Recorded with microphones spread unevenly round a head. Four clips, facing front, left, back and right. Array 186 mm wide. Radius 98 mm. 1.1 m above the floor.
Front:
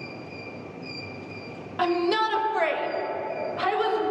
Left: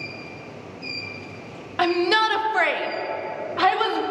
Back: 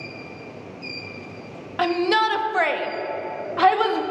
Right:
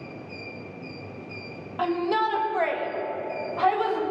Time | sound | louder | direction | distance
1.8 | a shout | left 4 dB, back 3 dB | 95° left | 1.8 m